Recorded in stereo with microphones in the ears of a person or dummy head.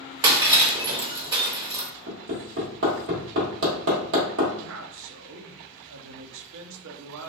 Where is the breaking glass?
20° right (ahead or behind), 0.7 m.